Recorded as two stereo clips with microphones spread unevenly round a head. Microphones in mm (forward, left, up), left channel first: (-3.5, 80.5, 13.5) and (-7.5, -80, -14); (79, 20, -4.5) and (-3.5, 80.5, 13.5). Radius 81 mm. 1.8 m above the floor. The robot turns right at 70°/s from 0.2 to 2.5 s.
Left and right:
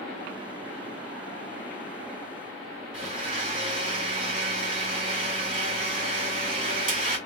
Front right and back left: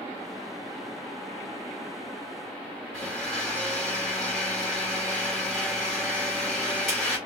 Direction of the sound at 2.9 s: 140° right.